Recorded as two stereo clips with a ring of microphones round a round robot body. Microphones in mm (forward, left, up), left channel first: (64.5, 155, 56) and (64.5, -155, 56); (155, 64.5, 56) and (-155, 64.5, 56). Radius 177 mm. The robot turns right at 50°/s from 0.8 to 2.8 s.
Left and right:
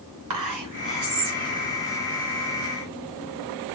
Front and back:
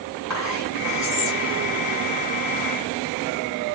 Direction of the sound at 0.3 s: 90° right.